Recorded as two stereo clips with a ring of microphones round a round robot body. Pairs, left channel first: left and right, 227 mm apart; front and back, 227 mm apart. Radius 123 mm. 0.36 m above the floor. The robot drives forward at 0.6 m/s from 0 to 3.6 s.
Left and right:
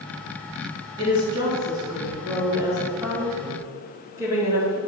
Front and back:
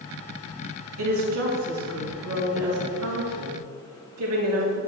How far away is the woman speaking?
About 3 m.